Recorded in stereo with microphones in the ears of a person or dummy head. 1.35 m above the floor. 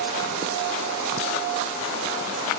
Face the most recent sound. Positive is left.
No sound to turn to.